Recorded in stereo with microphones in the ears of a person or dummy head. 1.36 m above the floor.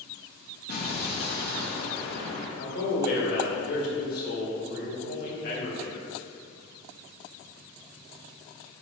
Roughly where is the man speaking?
Left.